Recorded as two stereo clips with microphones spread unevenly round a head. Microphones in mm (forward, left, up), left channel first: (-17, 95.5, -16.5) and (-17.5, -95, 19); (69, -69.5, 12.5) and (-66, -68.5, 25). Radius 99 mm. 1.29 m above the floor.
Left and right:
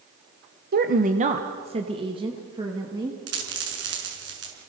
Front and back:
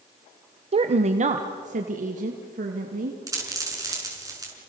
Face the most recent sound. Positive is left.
turn(degrees=-115)